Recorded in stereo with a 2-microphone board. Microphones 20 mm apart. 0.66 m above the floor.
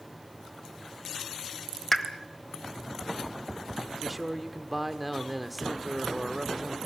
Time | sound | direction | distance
1.9 | a pop | 10° left (ahead or behind) | 1.3 m
4.0 | a man speaking | centre (ahead or behind) | 1.5 m